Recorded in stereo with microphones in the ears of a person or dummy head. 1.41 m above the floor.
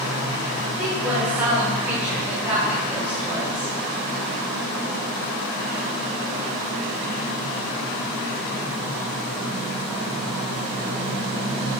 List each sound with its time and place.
0.8 s a woman speaking: 10° right (ahead or behind), 6.5 m